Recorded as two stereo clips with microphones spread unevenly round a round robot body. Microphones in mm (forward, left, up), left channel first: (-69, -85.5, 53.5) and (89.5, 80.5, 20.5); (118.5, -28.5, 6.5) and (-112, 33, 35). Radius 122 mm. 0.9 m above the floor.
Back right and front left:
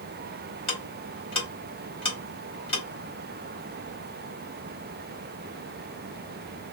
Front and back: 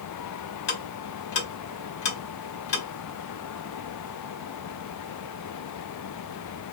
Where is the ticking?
65° right, 1.0 m.